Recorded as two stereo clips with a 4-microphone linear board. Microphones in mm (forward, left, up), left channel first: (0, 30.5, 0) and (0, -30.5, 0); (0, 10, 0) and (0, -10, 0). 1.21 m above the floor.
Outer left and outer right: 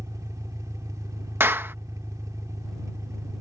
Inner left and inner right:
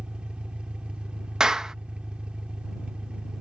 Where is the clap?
35° right (ahead or behind).